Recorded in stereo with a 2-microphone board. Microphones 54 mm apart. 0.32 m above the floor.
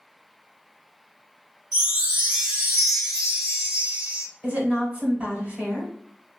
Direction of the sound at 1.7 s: 15° right (ahead or behind).